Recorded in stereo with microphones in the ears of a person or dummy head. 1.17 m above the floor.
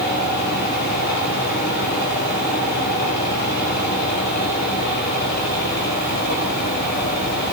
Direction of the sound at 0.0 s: 60° left (ahead or behind).